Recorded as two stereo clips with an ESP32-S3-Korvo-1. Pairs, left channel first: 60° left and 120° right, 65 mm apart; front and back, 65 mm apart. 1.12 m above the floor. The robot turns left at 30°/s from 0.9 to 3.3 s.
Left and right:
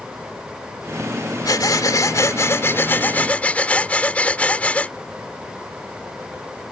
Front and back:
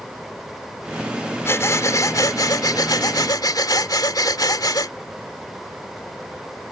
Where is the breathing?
50° left; by 5.0 s 10° right.